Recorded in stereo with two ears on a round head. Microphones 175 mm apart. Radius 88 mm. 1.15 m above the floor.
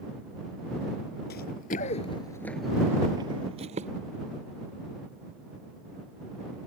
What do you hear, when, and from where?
1.3 s running footsteps: 55° left (ahead or behind); by 3.9 s 35° right (ahead or behind)